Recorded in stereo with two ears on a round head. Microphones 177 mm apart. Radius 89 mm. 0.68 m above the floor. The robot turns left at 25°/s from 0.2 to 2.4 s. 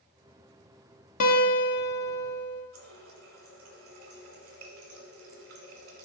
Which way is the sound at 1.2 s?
40° left (ahead or behind).